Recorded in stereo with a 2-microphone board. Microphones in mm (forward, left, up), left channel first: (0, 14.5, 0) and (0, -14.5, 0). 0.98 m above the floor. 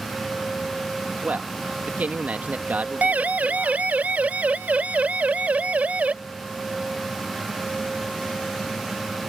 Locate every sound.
1.2 s a man speaking: 70° right (ahead or behind)
3.0 s a siren: 70° right (ahead or behind); by 6.1 s 60° right (ahead or behind)